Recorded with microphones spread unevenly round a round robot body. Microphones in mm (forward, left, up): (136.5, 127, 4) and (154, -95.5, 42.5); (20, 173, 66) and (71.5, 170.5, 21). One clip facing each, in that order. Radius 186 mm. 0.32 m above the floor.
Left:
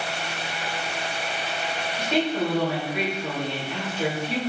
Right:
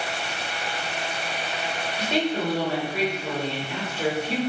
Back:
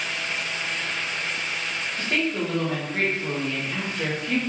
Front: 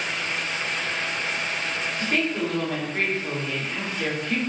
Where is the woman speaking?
145° right, 1.1 m.